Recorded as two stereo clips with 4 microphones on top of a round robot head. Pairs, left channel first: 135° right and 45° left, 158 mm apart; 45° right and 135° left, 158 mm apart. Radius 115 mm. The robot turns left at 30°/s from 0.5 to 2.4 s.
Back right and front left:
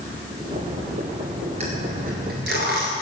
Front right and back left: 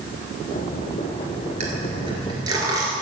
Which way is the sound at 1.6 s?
95° left.